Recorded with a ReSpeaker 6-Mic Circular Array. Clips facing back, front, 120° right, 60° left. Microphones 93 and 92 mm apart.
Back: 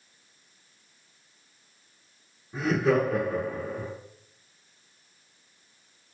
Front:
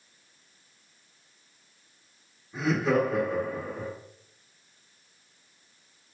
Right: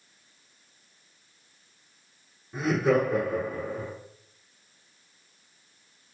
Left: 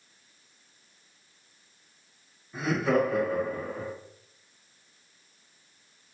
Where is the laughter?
155° right, 1.8 m.